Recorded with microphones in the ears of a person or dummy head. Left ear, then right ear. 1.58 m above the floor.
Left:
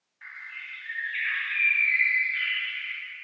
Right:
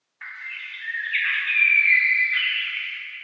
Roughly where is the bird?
Right.